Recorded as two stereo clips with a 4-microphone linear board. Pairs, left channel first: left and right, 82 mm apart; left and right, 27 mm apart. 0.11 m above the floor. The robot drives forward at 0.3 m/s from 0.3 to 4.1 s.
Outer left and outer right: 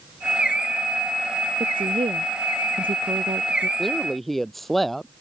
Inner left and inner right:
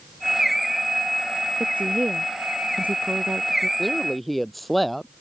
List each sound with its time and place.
1.6 s a woman speaking: 80° right
3.8 s a woman speaking: centre (ahead or behind)